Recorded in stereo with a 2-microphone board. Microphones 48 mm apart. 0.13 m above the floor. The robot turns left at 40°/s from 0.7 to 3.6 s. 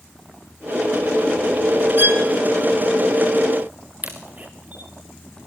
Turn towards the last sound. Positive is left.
turn(degrees=-35)  # may be behind; listen again after turning